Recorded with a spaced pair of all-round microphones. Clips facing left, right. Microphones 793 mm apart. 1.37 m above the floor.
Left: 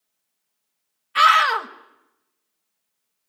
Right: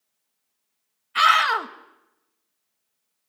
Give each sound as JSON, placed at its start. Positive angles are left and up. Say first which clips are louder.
{"t": 1.1, "sound": "a scream", "louder": "left 2 dB", "side_deg": 15, "distance_m": 1.4}